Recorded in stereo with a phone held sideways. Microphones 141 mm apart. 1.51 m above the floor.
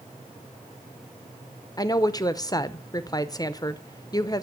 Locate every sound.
1.8 s a woman speaking: 25° left (ahead or behind), 0.8 m